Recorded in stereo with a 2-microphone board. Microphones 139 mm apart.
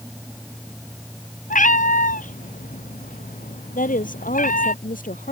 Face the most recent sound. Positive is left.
turn(degrees=75)  # may be behind; listen again after turning